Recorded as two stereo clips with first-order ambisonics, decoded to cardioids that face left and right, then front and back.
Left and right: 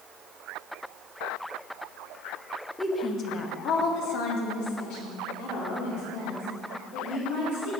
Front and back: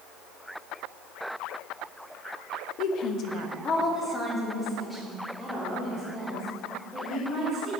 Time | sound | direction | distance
2.8 | a woman speaking | straight ahead | 0.6 m